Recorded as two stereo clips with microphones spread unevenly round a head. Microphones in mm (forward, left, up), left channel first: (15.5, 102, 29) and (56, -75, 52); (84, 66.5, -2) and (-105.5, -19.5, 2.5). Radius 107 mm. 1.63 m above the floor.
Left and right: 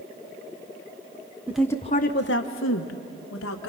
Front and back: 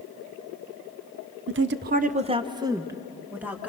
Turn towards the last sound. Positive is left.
turn(degrees=120)